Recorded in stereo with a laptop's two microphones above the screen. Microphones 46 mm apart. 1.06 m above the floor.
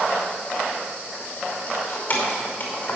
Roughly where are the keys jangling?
Left.